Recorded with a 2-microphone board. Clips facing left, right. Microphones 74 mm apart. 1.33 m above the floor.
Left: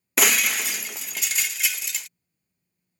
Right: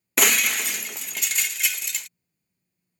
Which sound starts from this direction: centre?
Breaking glass, at 0.2 s.